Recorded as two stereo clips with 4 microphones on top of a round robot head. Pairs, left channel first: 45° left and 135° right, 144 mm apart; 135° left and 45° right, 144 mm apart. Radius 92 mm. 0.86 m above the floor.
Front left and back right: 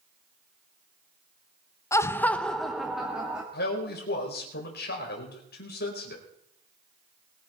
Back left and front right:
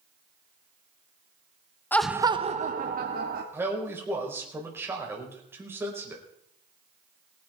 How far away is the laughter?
About 0.9 m.